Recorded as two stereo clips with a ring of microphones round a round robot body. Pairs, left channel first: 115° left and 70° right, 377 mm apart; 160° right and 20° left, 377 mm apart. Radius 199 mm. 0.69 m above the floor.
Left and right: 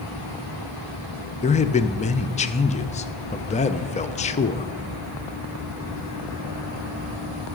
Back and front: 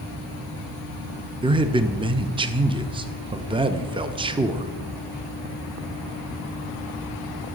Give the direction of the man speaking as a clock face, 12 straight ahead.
9 o'clock.